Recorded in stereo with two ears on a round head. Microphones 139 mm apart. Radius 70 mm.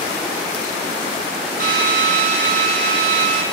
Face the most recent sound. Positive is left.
turn(degrees=-65)  # may be behind; listen again after turning